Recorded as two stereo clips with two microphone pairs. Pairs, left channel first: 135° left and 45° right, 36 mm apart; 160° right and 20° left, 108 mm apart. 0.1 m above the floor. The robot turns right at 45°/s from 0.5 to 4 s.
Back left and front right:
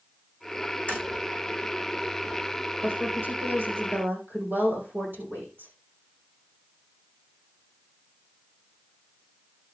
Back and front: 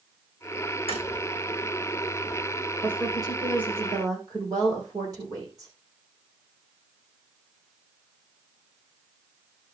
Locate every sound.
0.9 s tapping: straight behind, 4.5 m; by 1.0 s 175° right, 4.5 m
2.8 s a woman speaking: 85° right, 6 m; by 5.7 s 30° right, 6 m